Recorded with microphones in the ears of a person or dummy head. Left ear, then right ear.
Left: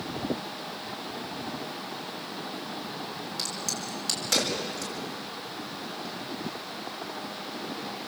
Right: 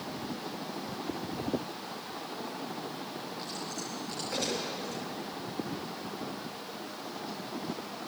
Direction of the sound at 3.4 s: 80° left.